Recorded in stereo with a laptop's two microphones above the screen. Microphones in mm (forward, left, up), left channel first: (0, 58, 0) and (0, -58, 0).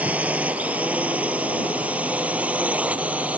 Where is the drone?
10° right (ahead or behind).